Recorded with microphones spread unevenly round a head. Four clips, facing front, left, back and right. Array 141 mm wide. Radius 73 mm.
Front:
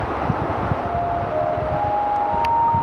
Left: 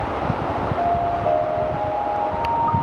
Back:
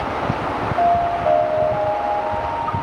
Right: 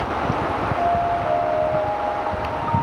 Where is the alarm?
170° left, 7 m.